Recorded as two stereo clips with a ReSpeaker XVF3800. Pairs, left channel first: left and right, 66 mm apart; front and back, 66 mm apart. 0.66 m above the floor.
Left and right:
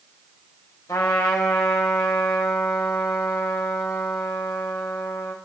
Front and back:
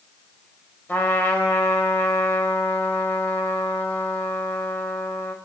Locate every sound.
0.9 s a trumpet: 60° left, 2 m